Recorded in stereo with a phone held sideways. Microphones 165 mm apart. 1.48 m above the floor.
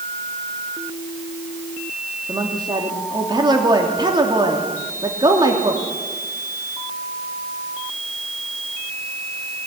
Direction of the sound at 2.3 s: 25° right (ahead or behind).